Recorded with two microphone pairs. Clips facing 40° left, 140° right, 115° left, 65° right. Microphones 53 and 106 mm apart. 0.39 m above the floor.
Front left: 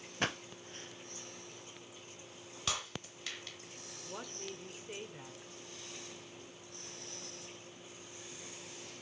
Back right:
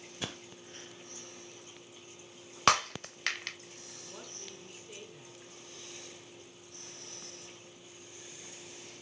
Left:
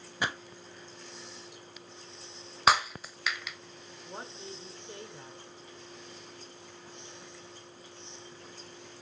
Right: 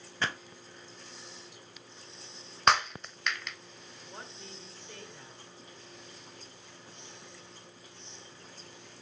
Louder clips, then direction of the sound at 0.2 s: Front left 6 dB, left 1 dB; 40° left.